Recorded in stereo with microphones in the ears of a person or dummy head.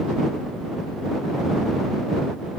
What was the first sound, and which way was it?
Only background noise.